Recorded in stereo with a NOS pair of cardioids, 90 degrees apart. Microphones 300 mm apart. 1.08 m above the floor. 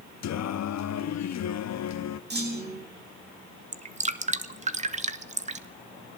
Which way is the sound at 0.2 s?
60° left.